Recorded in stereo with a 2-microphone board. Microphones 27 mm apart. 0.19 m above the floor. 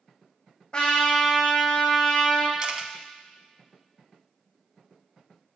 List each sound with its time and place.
0.7 s a trumpet: 25° left (ahead or behind), 2.5 m
2.6 s a camera shutter: 30° right (ahead or behind), 0.6 m